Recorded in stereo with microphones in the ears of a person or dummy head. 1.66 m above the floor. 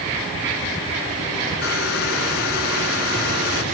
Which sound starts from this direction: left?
A hair dryer, at 1.6 s.